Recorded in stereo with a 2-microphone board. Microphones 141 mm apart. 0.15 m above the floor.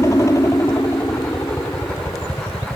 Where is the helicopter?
25° left (ahead or behind); by 2.8 s 20° left (ahead or behind).